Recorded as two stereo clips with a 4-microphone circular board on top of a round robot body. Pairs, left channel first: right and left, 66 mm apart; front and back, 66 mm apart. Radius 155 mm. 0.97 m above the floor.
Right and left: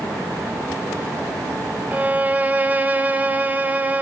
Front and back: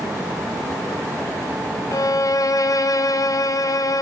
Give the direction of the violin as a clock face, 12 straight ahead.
11 o'clock.